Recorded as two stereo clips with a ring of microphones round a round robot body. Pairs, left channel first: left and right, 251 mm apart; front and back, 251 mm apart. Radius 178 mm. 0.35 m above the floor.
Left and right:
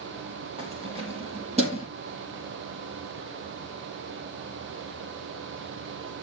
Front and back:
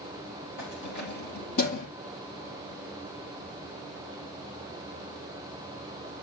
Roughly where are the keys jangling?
Ahead.